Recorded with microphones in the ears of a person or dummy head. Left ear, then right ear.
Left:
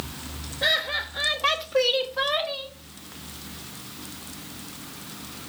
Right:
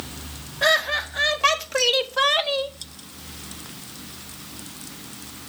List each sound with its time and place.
0.6 s laughter: 60° right (ahead or behind), 1.5 m; by 2.7 s 30° right (ahead or behind), 0.7 m